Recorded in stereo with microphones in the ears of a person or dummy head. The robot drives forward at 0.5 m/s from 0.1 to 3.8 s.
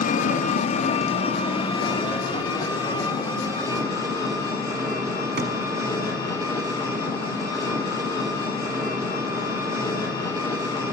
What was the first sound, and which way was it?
An engine running, 45° left (ahead or behind).